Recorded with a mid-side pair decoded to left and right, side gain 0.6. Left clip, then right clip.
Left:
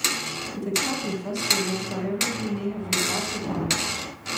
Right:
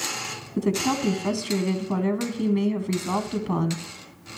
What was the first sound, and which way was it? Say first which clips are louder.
A woman speaking: right 3 dB; 55° right.